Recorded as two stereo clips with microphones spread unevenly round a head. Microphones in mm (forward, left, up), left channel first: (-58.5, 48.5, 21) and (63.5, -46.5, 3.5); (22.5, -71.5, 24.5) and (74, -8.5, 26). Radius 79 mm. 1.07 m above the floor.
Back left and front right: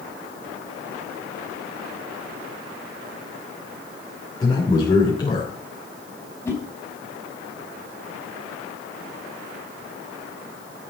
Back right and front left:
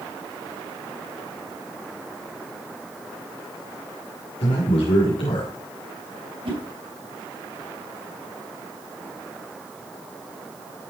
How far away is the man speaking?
About 3 m.